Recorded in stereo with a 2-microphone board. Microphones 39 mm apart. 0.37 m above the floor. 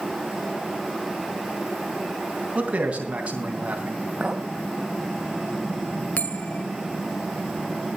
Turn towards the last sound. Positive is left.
turn(degrees=40)  # may be behind; listen again after turning